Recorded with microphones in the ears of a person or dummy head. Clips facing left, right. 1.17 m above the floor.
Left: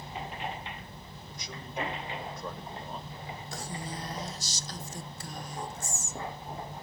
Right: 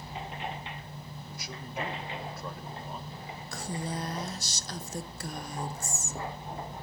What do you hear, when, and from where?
1.3 s a man speaking: 5° right (ahead or behind), 1.3 m
3.5 s a woman speaking: 50° right (ahead or behind), 0.7 m